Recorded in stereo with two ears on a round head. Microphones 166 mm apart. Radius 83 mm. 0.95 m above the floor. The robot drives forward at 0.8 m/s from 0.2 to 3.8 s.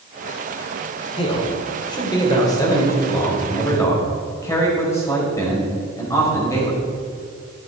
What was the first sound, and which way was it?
A man speaking, 30° left (ahead or behind).